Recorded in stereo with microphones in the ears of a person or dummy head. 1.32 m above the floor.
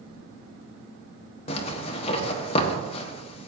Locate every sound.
1.5 s a zipper: 35° left (ahead or behind), 1.5 m